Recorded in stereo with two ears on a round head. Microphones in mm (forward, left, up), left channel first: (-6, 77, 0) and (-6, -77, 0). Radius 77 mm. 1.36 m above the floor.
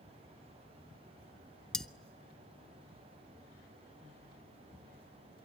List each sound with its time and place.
1.7 s cutlery clinking: 5° left (ahead or behind), 0.5 m